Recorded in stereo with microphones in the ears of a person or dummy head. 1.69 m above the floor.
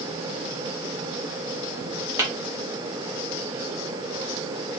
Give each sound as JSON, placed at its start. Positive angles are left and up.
{"t": 2.2, "sound": "tapping", "side_deg": -15, "distance_m": 2.0}